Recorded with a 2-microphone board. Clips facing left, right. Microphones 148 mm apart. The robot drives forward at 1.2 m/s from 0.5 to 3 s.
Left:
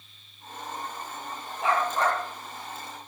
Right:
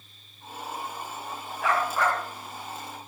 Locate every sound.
1.6 s a dog barking: 30° left (ahead or behind), 5.5 m; by 2.2 s 35° left (ahead or behind), 5 m